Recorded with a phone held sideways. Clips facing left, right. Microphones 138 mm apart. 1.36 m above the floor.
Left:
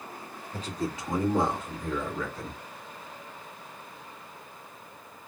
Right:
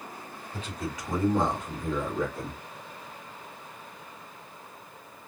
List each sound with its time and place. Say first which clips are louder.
0.5 s a man speaking: left 3 dB; 45° left (ahead or behind), 2.5 m; by 2.6 s 35° right (ahead or behind), 2.5 m